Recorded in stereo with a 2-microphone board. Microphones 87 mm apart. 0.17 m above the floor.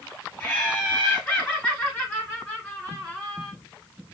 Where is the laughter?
25° left (ahead or behind), 3 m; by 3.5 s 5° left (ahead or behind), 1.7 m.